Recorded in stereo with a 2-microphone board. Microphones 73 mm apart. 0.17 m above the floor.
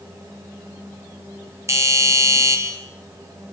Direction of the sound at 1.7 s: 40° right (ahead or behind).